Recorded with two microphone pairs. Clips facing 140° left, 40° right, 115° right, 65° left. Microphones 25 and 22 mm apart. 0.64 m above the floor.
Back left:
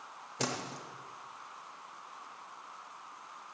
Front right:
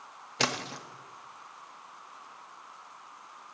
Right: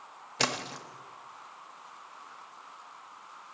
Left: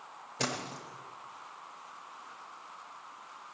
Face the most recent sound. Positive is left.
turn(degrees=-75)